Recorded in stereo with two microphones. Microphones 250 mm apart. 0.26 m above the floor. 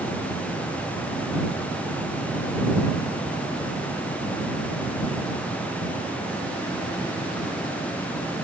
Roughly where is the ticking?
No ticking in this recording.